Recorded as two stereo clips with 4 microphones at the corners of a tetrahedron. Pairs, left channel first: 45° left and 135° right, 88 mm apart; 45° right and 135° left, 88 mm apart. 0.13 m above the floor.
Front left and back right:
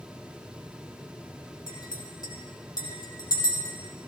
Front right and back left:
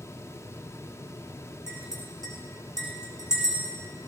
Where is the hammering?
No hammering in this recording.